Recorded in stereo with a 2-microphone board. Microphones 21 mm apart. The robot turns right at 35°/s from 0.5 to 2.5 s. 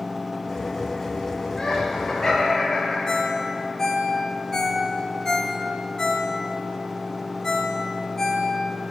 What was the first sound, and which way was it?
Laughter, 25° left (ahead or behind).